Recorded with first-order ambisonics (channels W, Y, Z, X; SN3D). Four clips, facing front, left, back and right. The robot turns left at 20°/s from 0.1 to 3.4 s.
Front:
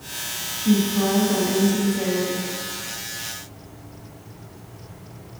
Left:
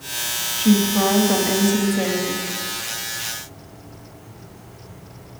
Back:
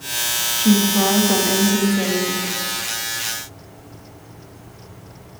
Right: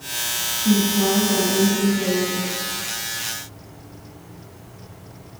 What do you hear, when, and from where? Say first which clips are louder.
0.6 s a woman speaking: left 2 dB, back 3 dB; 155° left, 1.9 m; by 2.5 s 115° left, 1.9 m